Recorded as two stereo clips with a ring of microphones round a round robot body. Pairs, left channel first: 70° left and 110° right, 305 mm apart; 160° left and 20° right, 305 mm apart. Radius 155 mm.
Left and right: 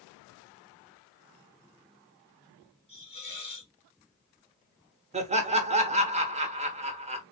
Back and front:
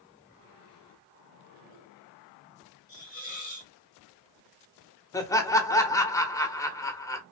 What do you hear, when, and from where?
2.9 s a hiss: 125° left, 1.3 m
5.1 s laughter: 140° right, 0.9 m